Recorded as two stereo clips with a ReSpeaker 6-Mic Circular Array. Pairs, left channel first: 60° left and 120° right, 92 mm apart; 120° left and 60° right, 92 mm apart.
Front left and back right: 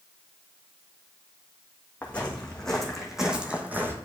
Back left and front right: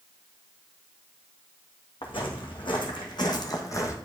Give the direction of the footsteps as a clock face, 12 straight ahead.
7 o'clock.